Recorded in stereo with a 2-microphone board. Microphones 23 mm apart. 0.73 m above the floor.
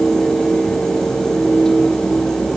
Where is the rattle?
I don't hear a rattle.